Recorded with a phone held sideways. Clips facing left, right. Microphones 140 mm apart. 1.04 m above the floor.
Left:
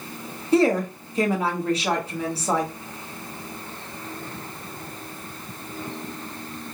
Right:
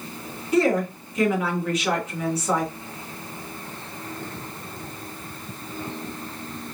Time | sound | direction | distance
0.5 | a woman speaking | 30° left (ahead or behind) | 1.1 m